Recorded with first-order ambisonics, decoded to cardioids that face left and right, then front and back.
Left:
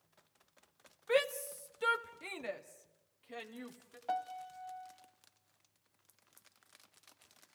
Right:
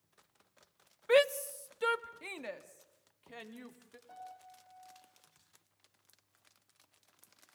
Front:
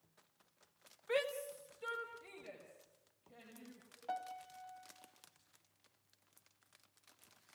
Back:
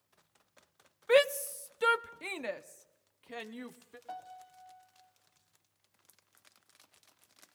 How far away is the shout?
About 0.6 m.